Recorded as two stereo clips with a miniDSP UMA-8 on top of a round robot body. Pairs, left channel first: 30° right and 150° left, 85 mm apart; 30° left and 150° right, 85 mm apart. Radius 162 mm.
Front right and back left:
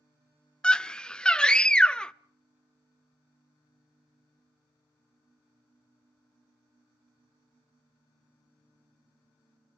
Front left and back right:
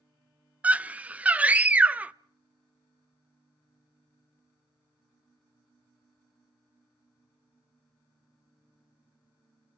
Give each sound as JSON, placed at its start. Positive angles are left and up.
{"t": 0.6, "sound": "a scream", "azimuth_deg": -100, "distance_m": 0.6}